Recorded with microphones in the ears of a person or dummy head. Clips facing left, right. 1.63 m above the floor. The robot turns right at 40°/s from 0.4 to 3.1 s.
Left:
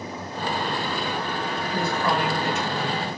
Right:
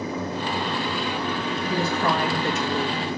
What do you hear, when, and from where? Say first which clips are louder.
1.7 s a woman speaking: right 1 dB; 155° right, 2.5 m; by 3.1 s 100° right, 2.5 m